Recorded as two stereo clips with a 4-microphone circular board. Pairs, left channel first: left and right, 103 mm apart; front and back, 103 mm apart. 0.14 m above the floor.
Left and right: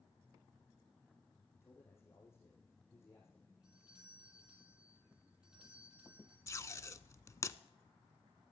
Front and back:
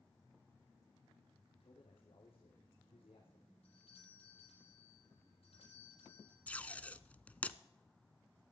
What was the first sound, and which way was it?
A man speaking, 25° left.